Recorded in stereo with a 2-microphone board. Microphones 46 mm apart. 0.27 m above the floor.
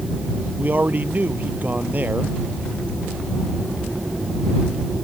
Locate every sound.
0.6 s a man speaking: 40° right (ahead or behind)